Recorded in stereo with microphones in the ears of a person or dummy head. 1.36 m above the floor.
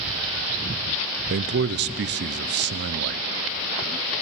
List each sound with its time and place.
1.3 s a man speaking: 50° right (ahead or behind), 0.6 m